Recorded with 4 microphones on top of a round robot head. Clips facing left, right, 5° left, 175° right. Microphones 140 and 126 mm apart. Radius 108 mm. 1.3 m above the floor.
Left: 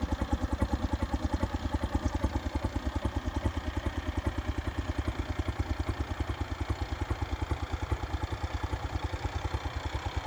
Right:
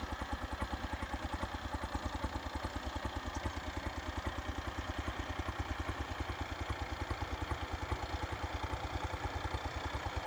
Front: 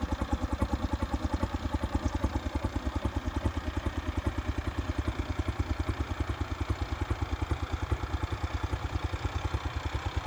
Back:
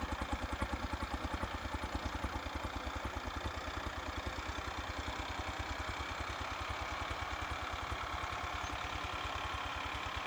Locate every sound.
0.0 s a helicopter: 55° left; by 10.3 s 25° left